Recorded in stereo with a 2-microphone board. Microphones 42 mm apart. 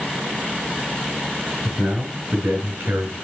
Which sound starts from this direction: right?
A man speaking, at 1.6 s.